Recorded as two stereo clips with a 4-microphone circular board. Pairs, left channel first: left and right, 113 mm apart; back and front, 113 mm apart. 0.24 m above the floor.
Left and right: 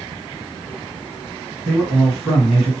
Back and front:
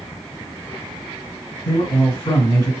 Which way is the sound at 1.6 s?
175° right.